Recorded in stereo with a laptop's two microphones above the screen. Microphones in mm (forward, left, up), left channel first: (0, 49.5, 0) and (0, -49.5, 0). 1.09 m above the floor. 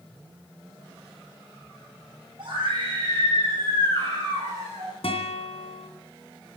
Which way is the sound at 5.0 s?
70° left (ahead or behind).